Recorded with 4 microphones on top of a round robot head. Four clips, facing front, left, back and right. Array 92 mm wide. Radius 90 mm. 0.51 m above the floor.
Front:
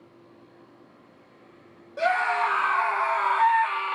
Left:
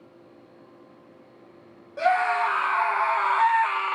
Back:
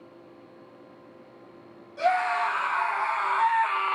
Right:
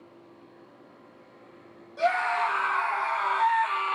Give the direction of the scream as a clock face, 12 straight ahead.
10 o'clock.